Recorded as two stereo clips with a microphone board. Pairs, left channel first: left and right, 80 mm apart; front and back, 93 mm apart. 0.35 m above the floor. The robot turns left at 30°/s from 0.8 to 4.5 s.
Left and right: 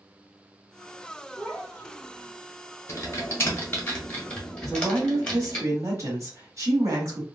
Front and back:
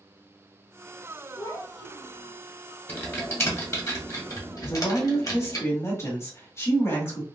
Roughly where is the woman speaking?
Ahead right.